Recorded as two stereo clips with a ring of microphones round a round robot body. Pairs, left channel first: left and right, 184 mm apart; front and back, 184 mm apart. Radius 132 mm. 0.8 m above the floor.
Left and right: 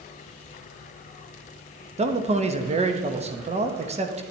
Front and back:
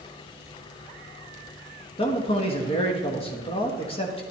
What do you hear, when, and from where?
2.0 s a man speaking: 50° right, 1.1 m